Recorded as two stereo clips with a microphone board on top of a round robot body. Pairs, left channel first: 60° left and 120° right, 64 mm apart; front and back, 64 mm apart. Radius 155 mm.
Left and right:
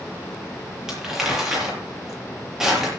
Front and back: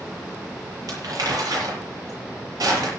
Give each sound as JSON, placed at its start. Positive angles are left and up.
{"t": 0.9, "sound": "crumpling", "azimuth_deg": 155, "distance_m": 8.5}